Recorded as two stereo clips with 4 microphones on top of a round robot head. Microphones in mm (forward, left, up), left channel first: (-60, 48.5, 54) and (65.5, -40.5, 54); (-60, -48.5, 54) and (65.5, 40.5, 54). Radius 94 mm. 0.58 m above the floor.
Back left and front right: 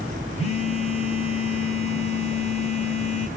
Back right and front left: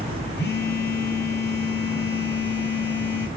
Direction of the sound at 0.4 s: 165° right.